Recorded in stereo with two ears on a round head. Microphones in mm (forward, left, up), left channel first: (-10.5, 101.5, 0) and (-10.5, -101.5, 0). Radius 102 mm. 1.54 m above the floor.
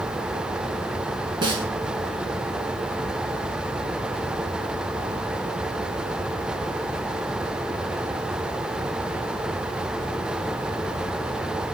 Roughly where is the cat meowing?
No cat meowing in this recording.